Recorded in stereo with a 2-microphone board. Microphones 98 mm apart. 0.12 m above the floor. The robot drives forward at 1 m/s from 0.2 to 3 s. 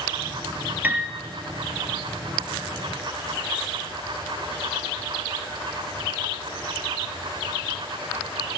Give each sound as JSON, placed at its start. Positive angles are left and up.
{"t": 0.8, "sound": "a piano", "side_deg": -15, "distance_m": 0.8}